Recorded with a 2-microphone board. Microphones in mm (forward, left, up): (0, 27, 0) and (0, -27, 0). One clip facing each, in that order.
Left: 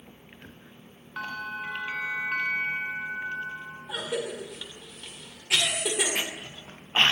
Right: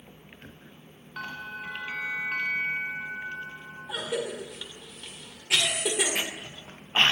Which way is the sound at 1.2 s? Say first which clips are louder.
Left 3 dB; 15° left (ahead or behind).